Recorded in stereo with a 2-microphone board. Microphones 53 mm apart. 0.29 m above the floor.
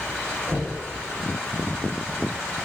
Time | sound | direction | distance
0.5 | knocking | 50° right (ahead or behind) | 1.4 m